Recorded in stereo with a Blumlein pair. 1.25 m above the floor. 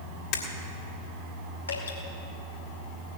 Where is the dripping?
70° left, 2.5 m.